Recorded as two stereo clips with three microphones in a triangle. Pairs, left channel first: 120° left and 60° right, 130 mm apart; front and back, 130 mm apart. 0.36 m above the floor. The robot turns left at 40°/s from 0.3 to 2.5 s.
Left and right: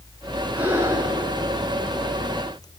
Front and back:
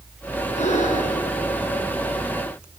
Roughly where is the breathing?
Ahead.